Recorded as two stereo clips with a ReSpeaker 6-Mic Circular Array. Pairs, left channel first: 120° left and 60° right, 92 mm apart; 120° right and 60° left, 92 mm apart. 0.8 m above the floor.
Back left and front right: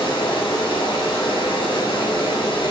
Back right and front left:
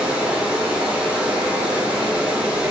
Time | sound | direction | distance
0.0 | running water | 140° left | 1.0 m